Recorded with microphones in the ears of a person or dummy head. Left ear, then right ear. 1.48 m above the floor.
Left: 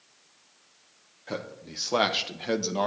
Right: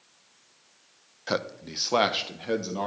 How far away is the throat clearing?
I don't hear throat clearing.